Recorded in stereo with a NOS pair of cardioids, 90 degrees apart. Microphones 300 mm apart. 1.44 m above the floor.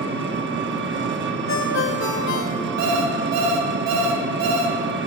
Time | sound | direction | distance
0.0 | an engine running | 40° right | 1.3 m
1.5 | a ringtone | 60° left | 1.9 m
2.8 | an alarm clock | 70° right | 4 m